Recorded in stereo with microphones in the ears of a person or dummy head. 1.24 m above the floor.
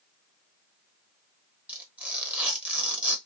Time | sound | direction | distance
1.7 | tearing paper | 5° right (ahead or behind) | 0.9 m